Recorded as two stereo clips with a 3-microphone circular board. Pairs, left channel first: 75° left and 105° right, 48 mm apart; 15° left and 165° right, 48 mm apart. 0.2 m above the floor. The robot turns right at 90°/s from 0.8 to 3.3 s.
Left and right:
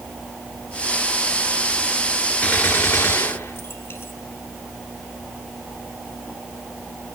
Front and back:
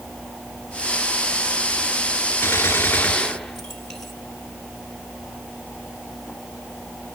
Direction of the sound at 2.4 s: 15° left.